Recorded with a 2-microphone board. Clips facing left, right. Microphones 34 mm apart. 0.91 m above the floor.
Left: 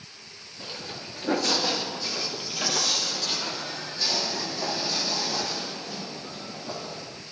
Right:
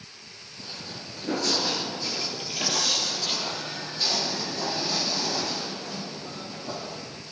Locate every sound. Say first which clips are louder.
0.6 s footsteps: left 2 dB; 45° left (ahead or behind), 1.1 m; by 7.0 s 35° right (ahead or behind), 4 m